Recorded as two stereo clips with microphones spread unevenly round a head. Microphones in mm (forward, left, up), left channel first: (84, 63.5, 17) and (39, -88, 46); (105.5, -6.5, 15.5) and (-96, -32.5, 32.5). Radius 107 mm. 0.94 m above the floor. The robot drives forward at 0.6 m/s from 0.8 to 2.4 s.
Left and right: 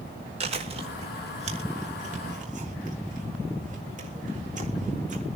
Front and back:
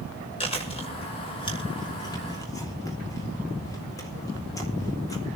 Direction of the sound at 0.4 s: 55° right.